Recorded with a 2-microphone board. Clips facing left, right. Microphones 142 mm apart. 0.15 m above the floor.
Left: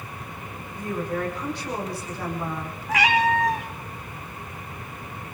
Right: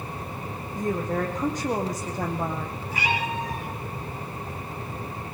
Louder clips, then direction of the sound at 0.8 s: Right 2 dB; 40° right (ahead or behind).